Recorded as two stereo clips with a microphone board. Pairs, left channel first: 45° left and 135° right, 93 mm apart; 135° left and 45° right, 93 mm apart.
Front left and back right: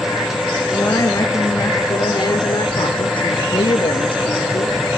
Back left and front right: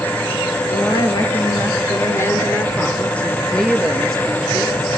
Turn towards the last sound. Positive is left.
turn(degrees=40)